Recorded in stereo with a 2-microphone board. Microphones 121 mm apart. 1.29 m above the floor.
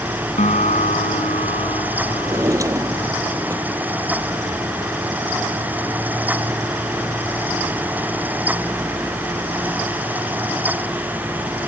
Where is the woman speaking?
No woman speaking in this recording.